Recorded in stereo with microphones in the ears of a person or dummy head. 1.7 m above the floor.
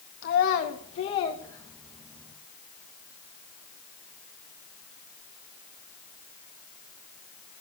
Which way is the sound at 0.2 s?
50° left (ahead or behind).